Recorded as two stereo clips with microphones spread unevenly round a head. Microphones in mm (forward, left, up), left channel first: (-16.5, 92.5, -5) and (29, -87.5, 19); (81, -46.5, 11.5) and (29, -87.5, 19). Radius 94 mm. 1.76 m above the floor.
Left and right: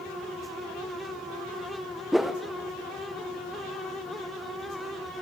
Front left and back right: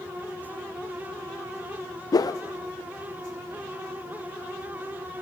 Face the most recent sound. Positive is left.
turn(degrees=10)